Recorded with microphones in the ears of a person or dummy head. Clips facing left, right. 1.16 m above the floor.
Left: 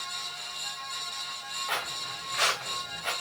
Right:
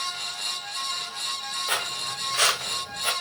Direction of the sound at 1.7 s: 50° right (ahead or behind).